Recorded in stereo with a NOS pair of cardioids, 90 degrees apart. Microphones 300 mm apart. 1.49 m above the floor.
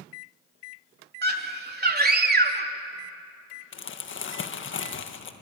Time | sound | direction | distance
1.2 | a scream | 30° right | 3.5 m
3.7 | crumpling | 40° left | 1.8 m